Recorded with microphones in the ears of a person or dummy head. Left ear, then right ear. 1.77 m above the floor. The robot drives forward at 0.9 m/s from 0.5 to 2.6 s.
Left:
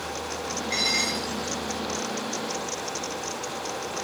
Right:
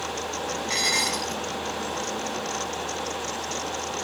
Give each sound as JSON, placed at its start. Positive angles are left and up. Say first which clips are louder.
{"t": 0.7, "sound": "dishes clattering", "louder": "right 1 dB", "side_deg": -60, "distance_m": 8.5}